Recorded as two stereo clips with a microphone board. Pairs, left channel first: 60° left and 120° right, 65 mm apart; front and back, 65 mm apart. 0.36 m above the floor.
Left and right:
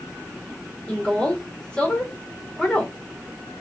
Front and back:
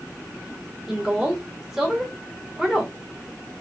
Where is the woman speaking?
115° left, 1.0 m.